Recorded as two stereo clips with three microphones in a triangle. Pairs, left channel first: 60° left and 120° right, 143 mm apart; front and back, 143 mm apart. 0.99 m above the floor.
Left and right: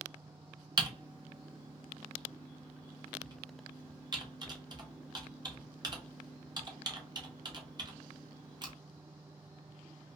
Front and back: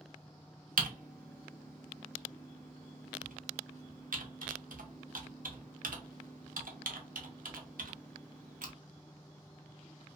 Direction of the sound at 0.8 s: 175° right.